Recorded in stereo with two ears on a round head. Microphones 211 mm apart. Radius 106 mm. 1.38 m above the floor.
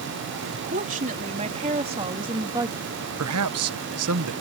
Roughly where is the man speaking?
Right.